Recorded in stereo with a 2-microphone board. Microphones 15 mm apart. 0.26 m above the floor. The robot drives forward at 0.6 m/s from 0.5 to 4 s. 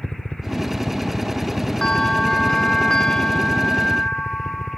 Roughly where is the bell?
Left.